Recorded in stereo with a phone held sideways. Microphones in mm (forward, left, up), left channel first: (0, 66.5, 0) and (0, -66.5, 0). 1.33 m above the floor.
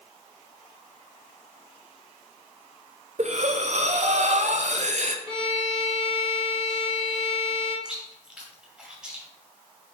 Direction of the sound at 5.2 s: 45° left (ahead or behind).